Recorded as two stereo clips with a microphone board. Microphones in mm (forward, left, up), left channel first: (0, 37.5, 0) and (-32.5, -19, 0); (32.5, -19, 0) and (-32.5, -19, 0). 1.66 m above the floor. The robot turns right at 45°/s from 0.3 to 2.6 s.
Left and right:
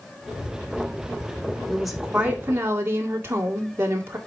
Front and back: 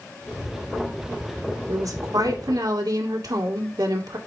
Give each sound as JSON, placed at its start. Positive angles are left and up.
{"t": 1.7, "sound": "a woman speaking", "azimuth_deg": 145, "distance_m": 1.9}